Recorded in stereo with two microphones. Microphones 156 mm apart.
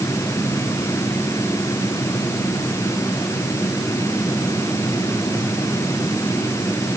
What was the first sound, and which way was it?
Only background noise.